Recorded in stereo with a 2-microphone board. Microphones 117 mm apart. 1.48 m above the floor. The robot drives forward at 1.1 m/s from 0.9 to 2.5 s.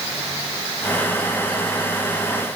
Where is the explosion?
I don't hear an explosion.